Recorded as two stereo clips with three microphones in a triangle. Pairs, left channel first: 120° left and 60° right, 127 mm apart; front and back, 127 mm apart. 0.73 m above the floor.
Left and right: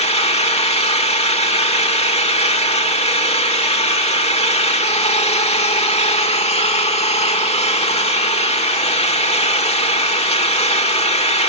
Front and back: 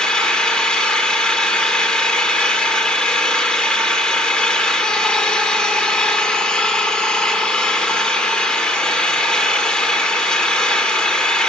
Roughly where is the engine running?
Left.